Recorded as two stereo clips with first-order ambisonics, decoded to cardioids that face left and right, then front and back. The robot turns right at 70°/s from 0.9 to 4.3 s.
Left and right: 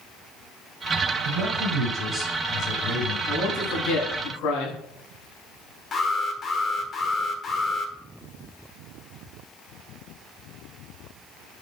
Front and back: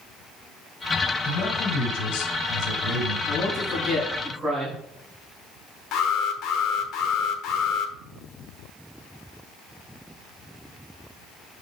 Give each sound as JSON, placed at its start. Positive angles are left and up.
{"t": 1.2, "sound": "a man speaking", "azimuth_deg": -65, "distance_m": 2.5}
{"t": 3.3, "sound": "a man speaking", "azimuth_deg": 30, "distance_m": 5.5}
{"t": 5.9, "sound": "an alarm", "azimuth_deg": 30, "distance_m": 1.4}